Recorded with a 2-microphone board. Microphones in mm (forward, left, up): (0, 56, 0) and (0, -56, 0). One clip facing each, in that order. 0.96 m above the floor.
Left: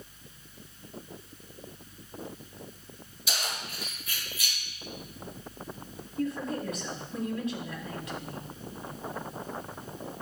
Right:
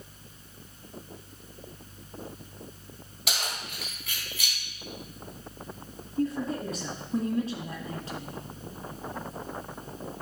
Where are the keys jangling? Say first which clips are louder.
Right 1 dB; 75° right (ahead or behind), 3.5 m.